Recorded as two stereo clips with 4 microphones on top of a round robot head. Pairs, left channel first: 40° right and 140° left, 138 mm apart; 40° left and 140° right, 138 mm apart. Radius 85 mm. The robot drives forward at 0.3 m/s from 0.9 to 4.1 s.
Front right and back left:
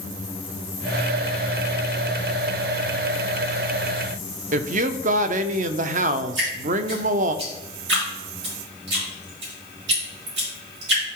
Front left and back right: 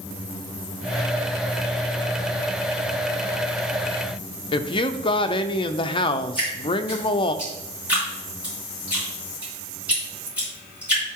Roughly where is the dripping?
Behind left.